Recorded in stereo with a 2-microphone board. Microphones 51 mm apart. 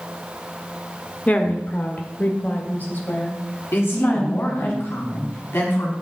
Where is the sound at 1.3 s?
25° left (ahead or behind), 1.4 m; by 4.7 s 40° left (ahead or behind), 4 m.